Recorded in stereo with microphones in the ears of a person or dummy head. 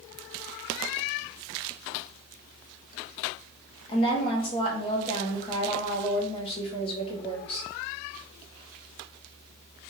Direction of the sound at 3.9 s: 30° left (ahead or behind).